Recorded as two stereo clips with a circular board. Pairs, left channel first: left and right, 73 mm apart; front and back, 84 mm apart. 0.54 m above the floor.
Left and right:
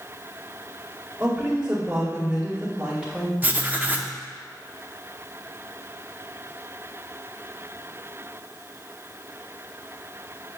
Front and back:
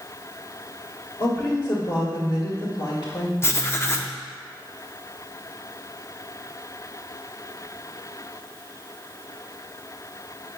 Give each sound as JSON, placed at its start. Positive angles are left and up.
{"t": 1.2, "sound": "a woman speaking", "azimuth_deg": 0, "distance_m": 1.7}
{"t": 3.4, "sound": "writing", "azimuth_deg": -35, "distance_m": 0.5}